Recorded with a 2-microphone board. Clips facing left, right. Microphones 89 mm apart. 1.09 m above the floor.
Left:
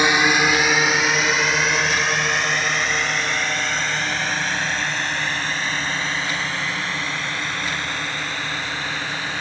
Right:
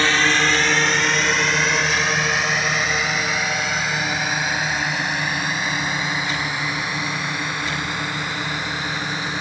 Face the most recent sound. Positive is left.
turn(degrees=-15)  # may be behind; listen again after turning